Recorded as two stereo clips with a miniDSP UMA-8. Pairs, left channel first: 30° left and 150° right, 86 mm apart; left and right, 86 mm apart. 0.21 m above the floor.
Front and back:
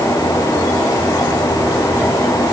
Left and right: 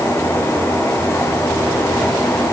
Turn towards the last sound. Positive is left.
No sound to turn to.